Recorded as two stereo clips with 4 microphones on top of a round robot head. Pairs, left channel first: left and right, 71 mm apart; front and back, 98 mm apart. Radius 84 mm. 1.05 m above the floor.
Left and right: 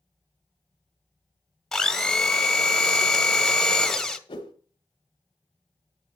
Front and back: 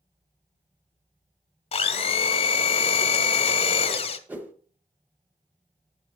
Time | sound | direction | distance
1.7 | a blender | 5° left | 0.9 m
4.3 | a whoosh | 110° left | 1.3 m